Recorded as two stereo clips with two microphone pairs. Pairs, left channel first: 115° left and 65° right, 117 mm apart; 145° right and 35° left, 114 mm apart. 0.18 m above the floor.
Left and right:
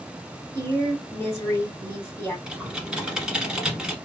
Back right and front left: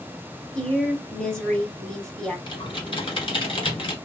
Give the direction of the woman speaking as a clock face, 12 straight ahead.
7 o'clock.